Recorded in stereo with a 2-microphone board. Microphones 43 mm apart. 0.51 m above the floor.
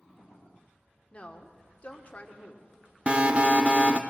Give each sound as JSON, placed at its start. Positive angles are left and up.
{"t": 1.1, "sound": "a woman speaking", "side_deg": 35, "distance_m": 1.5}
{"t": 3.1, "sound": "an alarm", "side_deg": -30, "distance_m": 0.9}